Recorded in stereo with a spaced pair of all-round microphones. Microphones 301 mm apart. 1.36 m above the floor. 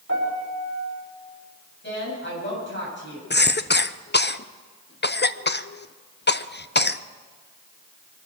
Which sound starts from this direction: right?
A piano, at 0.1 s.